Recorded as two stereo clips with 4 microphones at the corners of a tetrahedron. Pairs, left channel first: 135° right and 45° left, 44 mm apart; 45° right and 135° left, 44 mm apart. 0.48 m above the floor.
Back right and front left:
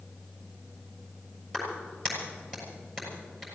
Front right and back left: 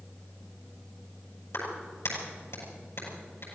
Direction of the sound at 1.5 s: 55° right.